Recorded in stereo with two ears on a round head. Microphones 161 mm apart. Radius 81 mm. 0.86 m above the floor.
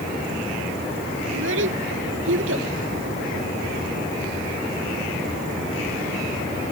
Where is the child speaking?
80° right.